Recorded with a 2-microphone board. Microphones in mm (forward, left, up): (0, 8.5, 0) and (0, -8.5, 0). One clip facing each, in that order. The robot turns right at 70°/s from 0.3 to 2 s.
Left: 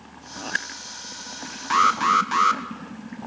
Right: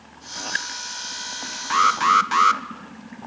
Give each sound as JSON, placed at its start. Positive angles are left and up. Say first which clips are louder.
{"t": 1.7, "sound": "an alarm", "louder": "right 1 dB", "side_deg": 0, "distance_m": 1.4}